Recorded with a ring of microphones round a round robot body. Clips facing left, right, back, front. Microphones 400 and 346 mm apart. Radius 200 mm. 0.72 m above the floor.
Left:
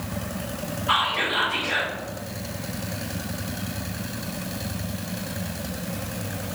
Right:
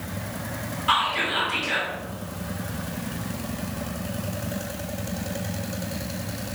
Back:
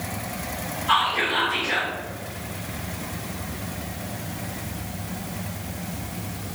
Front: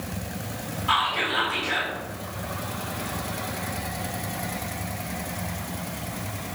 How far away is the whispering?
About 1.4 m.